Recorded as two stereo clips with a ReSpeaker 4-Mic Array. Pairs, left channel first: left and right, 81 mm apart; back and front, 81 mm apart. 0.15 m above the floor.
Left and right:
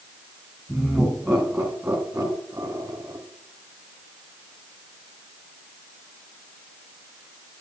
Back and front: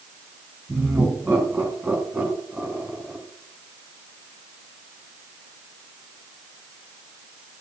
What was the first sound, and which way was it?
Laughter, 10° left.